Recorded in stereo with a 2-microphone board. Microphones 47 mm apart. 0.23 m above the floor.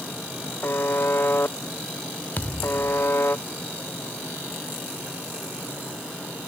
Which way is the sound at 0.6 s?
50° left (ahead or behind).